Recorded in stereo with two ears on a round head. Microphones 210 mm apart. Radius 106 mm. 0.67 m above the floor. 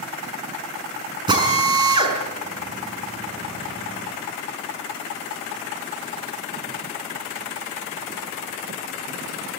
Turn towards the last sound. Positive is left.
turn(degrees=-20)  # may be behind; listen again after turning